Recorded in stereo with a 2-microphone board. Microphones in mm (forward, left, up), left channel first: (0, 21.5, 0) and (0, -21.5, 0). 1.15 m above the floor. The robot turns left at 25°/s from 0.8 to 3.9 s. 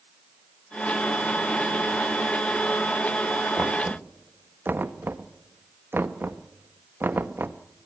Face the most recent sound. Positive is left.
turn(degrees=-55)  # may be behind; listen again after turning